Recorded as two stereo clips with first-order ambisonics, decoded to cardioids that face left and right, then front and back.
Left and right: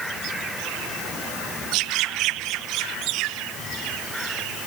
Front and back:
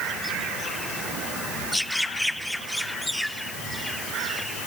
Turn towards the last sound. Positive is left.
No sound to turn to.